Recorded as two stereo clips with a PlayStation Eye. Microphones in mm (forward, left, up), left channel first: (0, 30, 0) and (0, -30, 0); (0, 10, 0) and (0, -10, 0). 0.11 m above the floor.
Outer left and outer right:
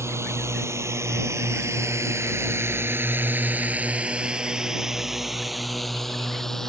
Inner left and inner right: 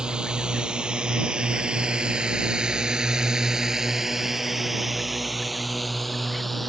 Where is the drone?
50° right (ahead or behind); by 6.7 s 5° left (ahead or behind).